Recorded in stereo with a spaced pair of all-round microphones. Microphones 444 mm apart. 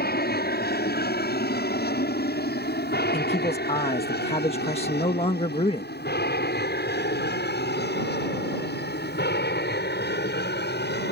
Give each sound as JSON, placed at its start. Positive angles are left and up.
{"t": 0.0, "sound": "an aircraft", "side_deg": 20}
{"t": 3.1, "sound": "a man speaking", "side_deg": 15}